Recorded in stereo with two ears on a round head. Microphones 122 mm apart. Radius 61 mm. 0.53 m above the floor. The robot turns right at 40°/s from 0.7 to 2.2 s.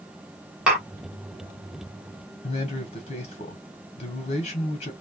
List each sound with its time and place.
0.7 s tapping: 5° right (ahead or behind), 2.5 m; by 0.9 s centre (ahead or behind), 2.5 m
2.4 s a man speaking: 50° left (ahead or behind), 1.3 m